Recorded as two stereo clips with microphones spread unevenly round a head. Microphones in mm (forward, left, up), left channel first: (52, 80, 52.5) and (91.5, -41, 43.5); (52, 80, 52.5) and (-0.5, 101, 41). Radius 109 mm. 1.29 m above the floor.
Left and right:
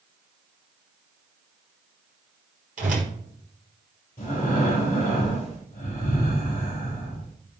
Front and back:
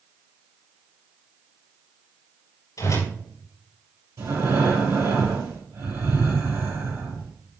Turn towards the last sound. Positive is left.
turn(degrees=170)